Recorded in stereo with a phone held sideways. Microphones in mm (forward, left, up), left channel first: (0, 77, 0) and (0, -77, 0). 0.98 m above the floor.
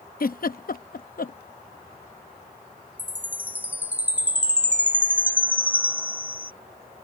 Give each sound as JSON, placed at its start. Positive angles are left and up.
{"t": 0.2, "sound": "a giggle", "side_deg": 70}
{"t": 3.0, "sound": "a chime", "side_deg": -10}